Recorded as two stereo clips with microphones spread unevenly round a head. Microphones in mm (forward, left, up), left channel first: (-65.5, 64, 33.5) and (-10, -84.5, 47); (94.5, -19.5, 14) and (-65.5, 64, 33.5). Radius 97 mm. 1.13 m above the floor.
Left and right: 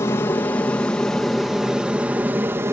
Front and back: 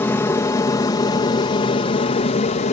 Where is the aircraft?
45° left; by 2.7 s 5° left.